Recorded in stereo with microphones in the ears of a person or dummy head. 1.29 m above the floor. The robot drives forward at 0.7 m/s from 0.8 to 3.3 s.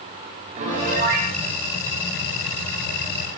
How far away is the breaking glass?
I don't hear breaking glass.